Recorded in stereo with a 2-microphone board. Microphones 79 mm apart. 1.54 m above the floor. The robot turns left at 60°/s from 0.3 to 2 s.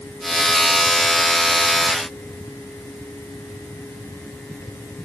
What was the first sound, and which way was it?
Only background noise.